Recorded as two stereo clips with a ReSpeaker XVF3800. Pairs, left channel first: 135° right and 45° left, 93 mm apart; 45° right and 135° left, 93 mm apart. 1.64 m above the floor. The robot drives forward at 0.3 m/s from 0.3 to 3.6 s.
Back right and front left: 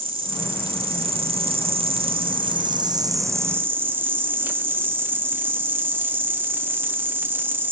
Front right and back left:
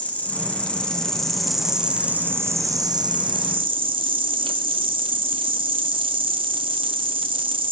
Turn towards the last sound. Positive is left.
turn(degrees=115)